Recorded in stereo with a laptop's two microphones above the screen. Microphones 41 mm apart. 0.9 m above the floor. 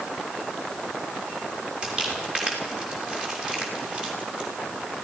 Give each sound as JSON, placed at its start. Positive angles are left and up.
{"t": 1.8, "sound": "crumpling", "side_deg": -20, "distance_m": 6.5}